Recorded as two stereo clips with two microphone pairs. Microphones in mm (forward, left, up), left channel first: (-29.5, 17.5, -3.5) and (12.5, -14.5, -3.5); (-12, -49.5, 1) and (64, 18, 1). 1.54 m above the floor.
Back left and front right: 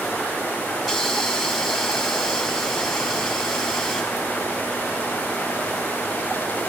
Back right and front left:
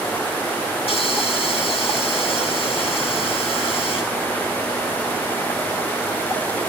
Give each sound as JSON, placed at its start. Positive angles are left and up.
{"t": 0.8, "sound": "a hiss", "azimuth_deg": -120, "distance_m": 6.0}